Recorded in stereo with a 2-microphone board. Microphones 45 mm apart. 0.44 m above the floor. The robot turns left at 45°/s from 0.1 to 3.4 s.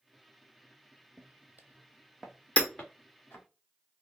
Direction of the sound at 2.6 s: 30° left (ahead or behind).